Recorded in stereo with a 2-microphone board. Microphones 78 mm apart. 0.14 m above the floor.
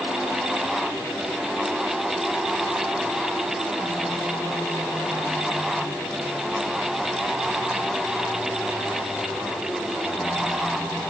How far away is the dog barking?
I don't hear a dog barking.